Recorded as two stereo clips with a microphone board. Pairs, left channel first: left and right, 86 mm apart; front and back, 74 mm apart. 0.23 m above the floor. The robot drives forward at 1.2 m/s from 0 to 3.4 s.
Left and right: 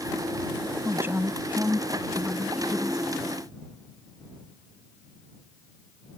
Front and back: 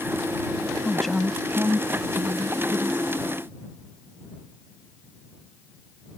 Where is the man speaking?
60° right; by 3.1 s 170° right.